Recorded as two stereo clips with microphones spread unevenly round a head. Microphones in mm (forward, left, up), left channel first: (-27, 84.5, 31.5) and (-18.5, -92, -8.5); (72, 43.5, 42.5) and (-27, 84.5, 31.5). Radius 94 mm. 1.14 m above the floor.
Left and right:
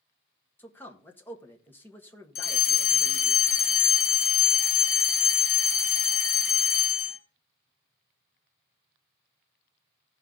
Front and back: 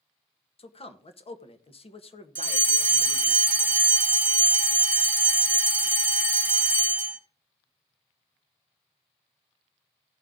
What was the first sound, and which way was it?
A man speaking, 10° left.